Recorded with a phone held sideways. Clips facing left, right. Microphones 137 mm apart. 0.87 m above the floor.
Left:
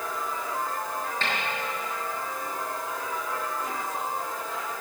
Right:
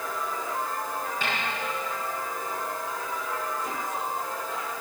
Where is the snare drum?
10° right (ahead or behind), 5.5 m.